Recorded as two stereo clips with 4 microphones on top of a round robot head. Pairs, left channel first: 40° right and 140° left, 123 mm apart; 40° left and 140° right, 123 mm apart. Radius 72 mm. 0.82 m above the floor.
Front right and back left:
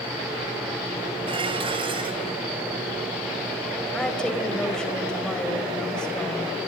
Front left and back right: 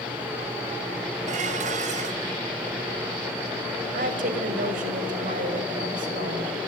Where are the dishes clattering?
170° right, 3.5 m.